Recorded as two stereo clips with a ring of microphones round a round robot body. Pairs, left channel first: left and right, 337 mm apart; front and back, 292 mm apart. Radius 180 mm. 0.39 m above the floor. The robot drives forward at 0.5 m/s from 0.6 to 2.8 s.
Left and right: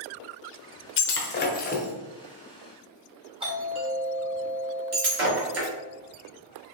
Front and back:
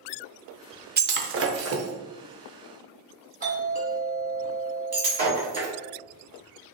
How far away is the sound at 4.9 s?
About 1.4 m.